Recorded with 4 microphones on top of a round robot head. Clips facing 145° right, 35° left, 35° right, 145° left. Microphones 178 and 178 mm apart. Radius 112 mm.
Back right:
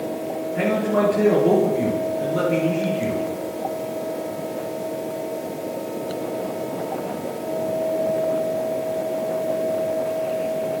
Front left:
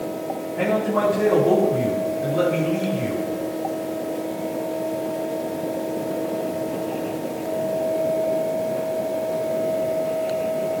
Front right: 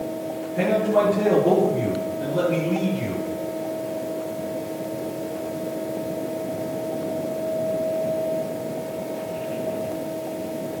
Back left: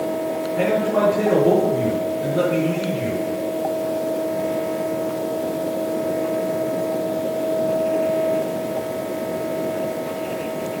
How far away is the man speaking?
About 8 m.